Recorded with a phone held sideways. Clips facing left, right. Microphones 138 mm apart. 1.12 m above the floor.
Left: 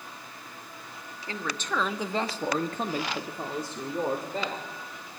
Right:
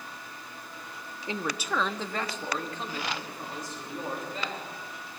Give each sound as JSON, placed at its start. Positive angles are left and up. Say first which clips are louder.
{"t": 1.3, "sound": "a man speaking", "louder": "right 1 dB", "side_deg": -20, "distance_m": 1.0}